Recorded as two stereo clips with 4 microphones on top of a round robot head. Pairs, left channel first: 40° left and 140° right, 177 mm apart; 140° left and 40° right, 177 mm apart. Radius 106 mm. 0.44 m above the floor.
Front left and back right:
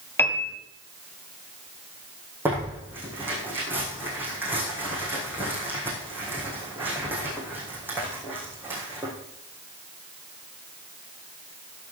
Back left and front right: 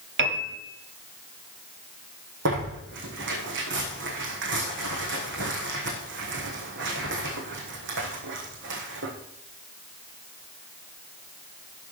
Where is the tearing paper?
60° right, 4 m.